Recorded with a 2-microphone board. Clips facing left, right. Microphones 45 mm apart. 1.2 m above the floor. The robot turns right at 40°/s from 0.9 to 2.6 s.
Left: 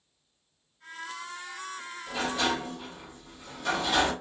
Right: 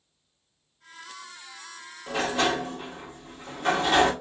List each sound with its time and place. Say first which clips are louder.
2.1 s a sliding door: right 4 dB; 55° right (ahead or behind), 1.0 m; by 4.1 s 45° right (ahead or behind), 1.0 m